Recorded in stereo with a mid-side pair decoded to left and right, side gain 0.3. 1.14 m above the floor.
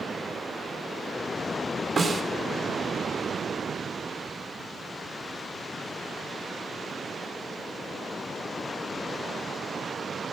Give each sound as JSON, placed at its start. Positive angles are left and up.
{"t": 2.0, "sound": "a snare drum", "azimuth_deg": -60, "distance_m": 3.0}